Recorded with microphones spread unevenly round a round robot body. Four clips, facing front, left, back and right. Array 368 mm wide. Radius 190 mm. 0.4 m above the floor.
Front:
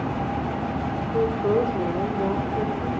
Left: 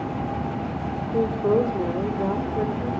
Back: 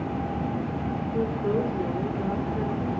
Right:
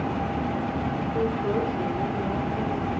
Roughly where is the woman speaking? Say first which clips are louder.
Left 6 dB, front 5 dB; ahead left.